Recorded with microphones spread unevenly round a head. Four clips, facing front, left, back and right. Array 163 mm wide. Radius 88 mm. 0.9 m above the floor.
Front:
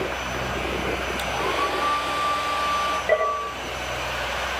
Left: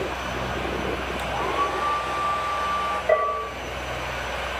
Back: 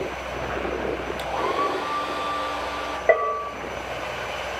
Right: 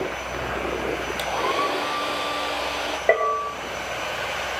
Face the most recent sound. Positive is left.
turn(degrees=-125)